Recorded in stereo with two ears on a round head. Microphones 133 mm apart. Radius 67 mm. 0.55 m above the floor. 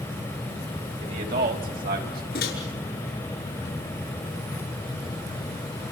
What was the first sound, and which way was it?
A man speaking, 55° right (ahead or behind).